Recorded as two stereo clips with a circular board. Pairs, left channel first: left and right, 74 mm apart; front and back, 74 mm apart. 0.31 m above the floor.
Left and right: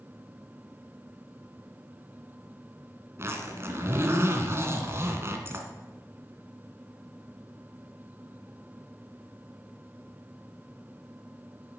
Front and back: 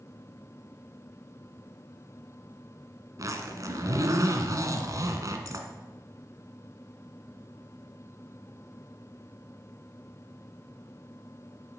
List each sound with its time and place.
3.2 s a zipper: 140° right, 1.9 m